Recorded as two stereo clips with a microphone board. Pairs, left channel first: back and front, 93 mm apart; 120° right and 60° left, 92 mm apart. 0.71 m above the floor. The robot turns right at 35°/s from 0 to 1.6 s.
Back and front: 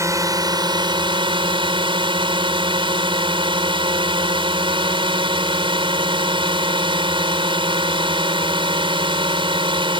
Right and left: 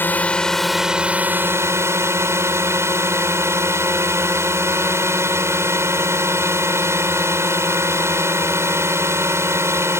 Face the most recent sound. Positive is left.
turn(degrees=5)